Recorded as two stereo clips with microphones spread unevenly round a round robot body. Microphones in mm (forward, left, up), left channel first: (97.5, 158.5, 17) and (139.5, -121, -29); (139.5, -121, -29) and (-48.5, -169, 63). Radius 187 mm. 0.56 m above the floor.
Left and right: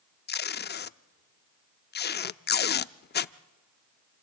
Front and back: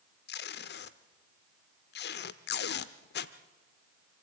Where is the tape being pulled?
35° left, 0.5 m.